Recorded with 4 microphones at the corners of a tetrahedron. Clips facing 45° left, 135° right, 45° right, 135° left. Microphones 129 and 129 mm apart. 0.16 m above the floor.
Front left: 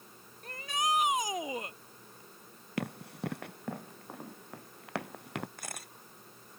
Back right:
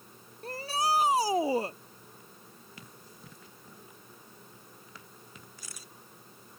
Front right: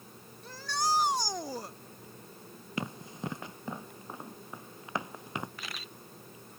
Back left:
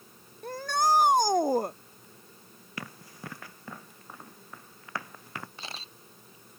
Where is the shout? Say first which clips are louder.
Back right 3 dB, back left 6 dB; 170° left.